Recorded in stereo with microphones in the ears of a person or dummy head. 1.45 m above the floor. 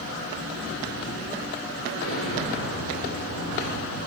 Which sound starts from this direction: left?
An explosion, at 1.9 s.